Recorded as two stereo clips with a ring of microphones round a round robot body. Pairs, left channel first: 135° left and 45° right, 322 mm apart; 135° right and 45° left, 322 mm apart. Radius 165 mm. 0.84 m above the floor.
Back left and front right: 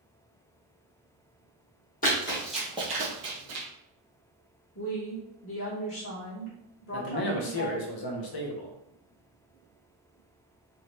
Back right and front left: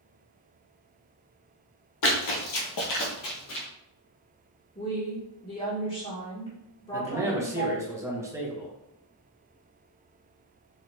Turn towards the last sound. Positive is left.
turn(degrees=125)